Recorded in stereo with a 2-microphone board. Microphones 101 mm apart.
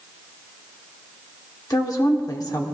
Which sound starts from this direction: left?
A woman speaking, at 1.7 s.